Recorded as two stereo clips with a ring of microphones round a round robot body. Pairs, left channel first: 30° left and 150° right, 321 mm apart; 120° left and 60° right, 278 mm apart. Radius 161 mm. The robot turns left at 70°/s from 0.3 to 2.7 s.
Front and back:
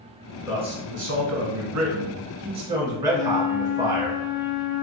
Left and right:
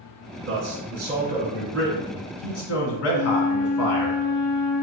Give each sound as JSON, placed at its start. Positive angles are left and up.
{"t": 0.5, "sound": "a man speaking", "azimuth_deg": -70, "distance_m": 1.3}
{"t": 3.1, "sound": "a flute", "azimuth_deg": 100, "distance_m": 0.9}